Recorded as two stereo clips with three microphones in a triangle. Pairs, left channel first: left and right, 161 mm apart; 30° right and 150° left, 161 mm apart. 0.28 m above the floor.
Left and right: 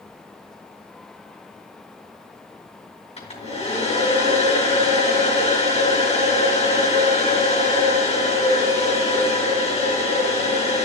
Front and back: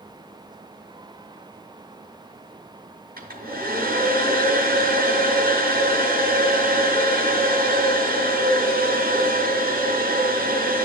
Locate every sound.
3.2 s a hair dryer: 140° left, 4.5 m